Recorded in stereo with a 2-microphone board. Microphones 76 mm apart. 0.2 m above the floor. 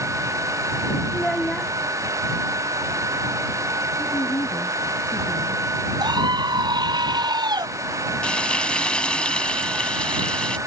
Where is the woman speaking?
75° left (ahead or behind).